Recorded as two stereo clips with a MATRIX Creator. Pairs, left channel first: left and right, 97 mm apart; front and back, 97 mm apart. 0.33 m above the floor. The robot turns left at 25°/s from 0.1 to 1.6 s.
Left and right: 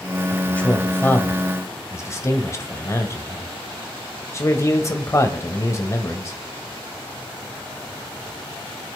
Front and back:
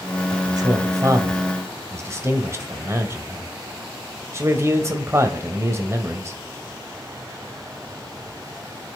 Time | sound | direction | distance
0.3 | a man speaking | 165° left | 1.4 m